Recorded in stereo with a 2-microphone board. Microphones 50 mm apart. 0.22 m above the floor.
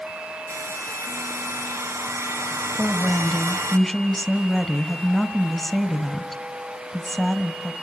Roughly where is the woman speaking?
Centre.